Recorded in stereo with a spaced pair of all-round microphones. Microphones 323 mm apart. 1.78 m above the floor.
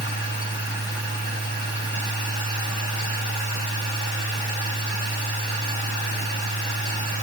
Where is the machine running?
40° left (ahead or behind), 9.5 m.